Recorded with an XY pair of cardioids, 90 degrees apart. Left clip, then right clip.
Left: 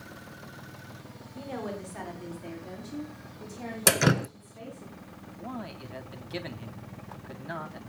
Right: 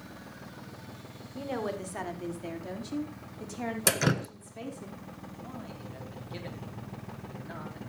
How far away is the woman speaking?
About 4 m.